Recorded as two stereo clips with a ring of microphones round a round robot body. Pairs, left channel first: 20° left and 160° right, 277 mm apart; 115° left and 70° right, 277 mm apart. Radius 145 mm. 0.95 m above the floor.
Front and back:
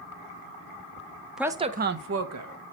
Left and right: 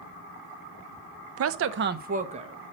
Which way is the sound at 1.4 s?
70° right.